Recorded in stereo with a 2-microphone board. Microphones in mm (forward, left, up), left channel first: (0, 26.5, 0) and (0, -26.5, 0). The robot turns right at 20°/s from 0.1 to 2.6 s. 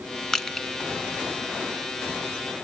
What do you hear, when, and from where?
0.3 s crushing: 10° left (ahead or behind), 1.1 m; by 0.7 s 5° left (ahead or behind), 1.1 m